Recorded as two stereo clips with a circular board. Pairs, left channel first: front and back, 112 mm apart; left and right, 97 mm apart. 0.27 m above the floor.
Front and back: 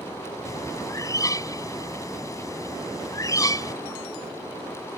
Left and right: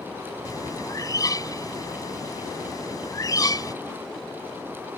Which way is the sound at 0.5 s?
50° left.